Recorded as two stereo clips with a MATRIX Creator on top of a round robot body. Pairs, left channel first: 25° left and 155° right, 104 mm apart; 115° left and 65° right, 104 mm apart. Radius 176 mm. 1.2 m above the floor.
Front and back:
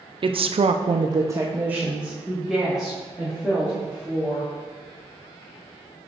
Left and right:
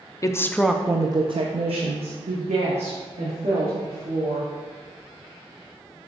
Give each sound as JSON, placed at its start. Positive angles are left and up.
{"t": 0.2, "sound": "a woman speaking", "azimuth_deg": 170, "distance_m": 0.7}